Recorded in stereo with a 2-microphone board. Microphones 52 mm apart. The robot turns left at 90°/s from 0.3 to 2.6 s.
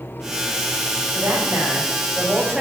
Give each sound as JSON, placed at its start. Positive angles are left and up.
{"t": 1.1, "sound": "a woman speaking", "azimuth_deg": -60, "distance_m": 3.5}